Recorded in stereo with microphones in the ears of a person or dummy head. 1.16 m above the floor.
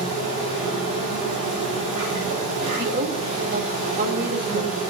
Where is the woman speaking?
60° right (ahead or behind), 3.5 m.